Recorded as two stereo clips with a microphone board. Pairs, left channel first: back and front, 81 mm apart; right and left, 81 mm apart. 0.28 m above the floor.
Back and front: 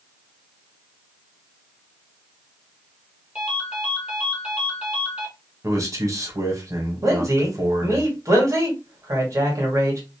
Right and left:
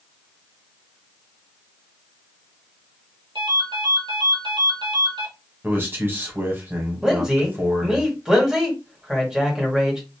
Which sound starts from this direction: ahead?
A man speaking, at 7.0 s.